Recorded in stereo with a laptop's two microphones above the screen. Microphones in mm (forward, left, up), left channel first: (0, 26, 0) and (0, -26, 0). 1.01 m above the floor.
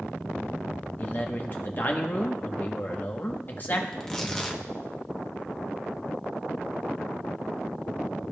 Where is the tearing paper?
10° left (ahead or behind), 1.1 m.